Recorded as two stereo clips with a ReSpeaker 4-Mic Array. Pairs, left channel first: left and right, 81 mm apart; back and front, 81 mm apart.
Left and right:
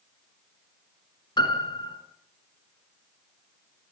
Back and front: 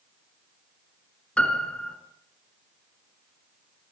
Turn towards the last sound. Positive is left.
turn(degrees=105)